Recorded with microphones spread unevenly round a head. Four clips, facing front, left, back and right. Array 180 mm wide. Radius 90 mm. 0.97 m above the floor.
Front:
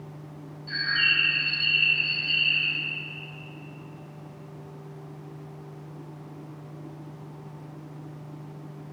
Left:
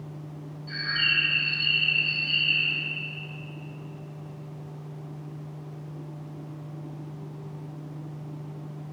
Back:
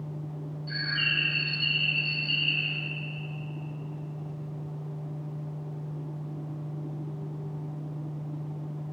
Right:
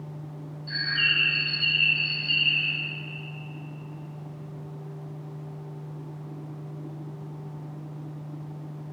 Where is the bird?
160° right, 3 m.